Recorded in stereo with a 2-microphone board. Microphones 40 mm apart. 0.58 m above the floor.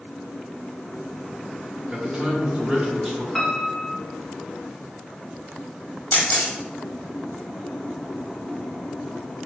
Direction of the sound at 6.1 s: 45° left (ahead or behind).